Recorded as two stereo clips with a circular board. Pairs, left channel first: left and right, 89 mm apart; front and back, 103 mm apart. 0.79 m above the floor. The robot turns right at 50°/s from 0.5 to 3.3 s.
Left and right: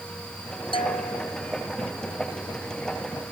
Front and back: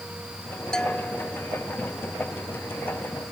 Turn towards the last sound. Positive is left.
turn(degrees=-150)